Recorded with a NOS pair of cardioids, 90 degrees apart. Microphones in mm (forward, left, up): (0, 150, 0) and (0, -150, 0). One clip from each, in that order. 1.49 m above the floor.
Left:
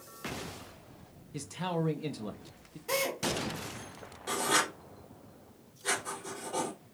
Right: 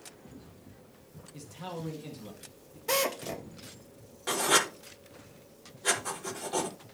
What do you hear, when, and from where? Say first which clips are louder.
1.3 s a man speaking: left 6 dB; 45° left, 1.6 m
2.9 s a drill: right 2 dB; 50° right, 3.5 m
4.3 s writing: right 3 dB; 40° right, 5 m